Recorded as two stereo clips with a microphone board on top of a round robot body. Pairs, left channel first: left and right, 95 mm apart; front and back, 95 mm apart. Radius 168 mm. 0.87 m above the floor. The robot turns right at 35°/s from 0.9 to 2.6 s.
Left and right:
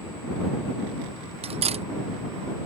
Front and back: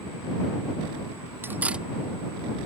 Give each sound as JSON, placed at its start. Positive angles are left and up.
{"t": 1.4, "sound": "cutlery clinking", "azimuth_deg": -110}